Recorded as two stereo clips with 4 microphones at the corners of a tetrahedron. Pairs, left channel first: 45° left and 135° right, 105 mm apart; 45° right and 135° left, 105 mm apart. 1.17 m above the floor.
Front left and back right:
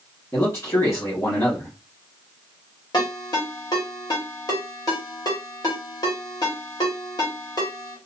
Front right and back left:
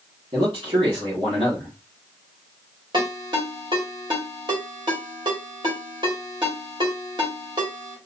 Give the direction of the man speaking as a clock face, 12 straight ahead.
9 o'clock.